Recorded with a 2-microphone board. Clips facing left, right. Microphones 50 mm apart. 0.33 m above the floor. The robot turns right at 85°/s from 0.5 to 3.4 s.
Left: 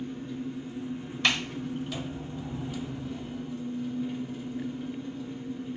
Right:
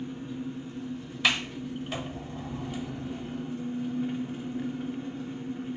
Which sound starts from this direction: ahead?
An engine running, at 0.0 s.